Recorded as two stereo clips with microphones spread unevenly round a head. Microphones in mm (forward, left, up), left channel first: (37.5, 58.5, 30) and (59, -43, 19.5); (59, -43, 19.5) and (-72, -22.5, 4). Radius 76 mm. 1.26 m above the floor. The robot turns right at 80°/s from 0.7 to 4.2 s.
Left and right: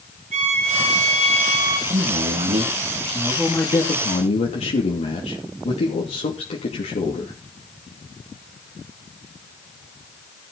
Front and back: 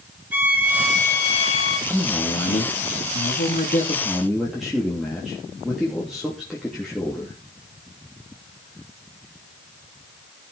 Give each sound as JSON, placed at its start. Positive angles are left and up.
{"t": 0.3, "sound": "a violin", "azimuth_deg": -115, "distance_m": 3.5}
{"t": 1.9, "sound": "a man speaking", "azimuth_deg": -105, "distance_m": 3.0}